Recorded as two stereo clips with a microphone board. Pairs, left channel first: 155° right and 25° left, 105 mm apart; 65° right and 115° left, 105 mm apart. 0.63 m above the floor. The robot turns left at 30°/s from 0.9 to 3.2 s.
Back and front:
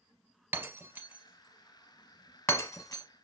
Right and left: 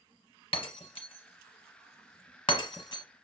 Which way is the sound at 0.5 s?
45° right.